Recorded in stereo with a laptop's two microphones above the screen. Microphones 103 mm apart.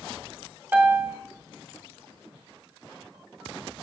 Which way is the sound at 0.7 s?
15° right (ahead or behind).